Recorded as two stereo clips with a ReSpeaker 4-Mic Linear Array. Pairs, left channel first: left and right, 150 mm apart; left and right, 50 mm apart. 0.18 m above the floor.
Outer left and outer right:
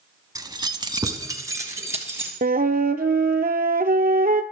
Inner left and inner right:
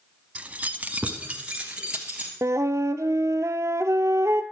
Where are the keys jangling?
25° right (ahead or behind), 0.8 m; by 2.3 s 15° right (ahead or behind), 2.5 m.